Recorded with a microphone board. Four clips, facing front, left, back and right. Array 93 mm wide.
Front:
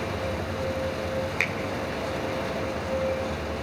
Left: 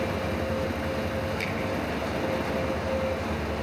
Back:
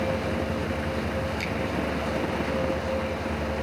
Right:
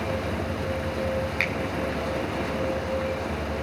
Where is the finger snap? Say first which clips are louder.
Right 3 dB, front 2 dB; 45° right, 2.5 m.